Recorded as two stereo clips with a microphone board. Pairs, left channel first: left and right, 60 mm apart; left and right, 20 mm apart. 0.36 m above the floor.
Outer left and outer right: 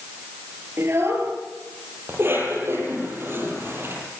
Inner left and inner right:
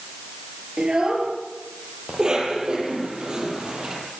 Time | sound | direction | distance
0.8 | a child speaking | 45° right (ahead or behind) | 5 m
2.1 | a cough | 40° right (ahead or behind) | 10 m